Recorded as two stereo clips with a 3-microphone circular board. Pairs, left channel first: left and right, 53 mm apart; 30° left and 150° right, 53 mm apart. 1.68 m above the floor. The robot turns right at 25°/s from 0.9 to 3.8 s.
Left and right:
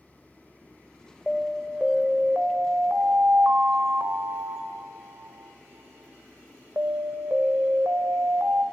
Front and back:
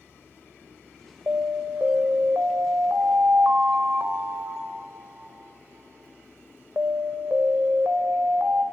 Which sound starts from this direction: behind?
An alarm, at 1.3 s.